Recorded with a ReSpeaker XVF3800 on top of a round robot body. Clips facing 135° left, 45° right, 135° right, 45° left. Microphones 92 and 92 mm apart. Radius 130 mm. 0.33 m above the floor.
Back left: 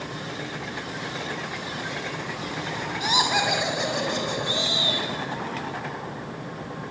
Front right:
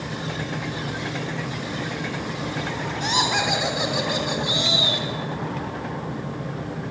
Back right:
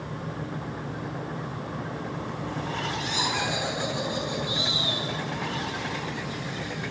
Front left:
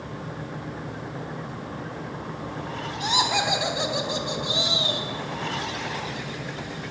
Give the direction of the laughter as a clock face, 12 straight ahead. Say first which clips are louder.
Even, front left 9 dB; 10 o'clock.